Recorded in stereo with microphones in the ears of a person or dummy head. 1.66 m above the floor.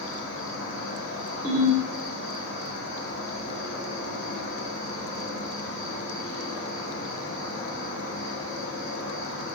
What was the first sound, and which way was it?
An insect, 65° right (ahead or behind).